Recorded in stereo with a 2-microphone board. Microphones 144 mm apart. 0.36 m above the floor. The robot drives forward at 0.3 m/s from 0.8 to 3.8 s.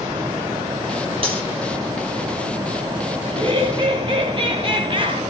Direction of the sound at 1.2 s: 40° right (ahead or behind).